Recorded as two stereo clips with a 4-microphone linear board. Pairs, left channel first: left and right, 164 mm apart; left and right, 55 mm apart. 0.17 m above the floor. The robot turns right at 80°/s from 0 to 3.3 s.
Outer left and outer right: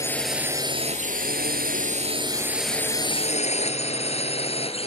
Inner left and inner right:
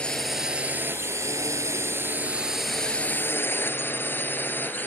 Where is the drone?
20° left (ahead or behind); by 4.9 s 35° left (ahead or behind).